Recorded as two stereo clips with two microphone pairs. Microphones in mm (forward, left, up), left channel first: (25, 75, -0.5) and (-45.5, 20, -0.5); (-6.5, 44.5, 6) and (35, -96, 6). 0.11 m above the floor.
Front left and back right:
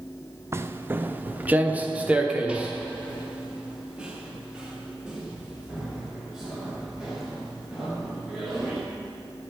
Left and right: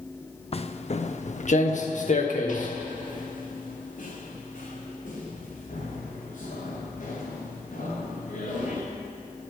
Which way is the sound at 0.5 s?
155° left.